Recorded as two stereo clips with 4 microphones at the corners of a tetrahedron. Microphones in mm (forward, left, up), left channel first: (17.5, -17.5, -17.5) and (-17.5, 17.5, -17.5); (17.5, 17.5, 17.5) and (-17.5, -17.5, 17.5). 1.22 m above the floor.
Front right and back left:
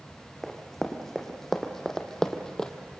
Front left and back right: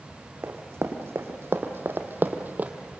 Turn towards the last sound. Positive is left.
turn(degrees=-110)